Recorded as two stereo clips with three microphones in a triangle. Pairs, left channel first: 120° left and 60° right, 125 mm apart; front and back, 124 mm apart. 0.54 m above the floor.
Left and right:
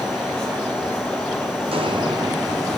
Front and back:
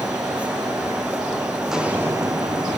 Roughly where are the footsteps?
Right.